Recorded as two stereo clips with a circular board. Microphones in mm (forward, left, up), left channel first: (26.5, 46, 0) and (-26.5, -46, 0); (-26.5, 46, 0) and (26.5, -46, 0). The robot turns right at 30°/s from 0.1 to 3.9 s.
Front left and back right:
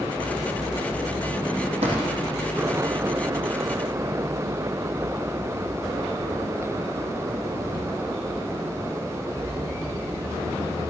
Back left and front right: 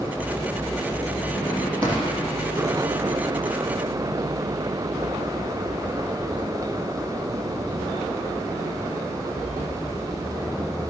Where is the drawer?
120° right, 5.5 m; by 2.0 s 115° right, 5.5 m.